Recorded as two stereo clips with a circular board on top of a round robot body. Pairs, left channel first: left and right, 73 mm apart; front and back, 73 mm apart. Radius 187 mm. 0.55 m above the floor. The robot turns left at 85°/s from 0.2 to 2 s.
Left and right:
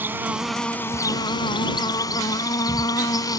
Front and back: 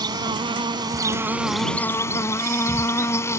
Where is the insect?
155° right; by 3.4 s 55° left.